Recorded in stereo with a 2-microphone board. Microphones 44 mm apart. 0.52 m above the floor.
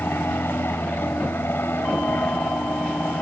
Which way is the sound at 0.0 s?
60° left (ahead or behind).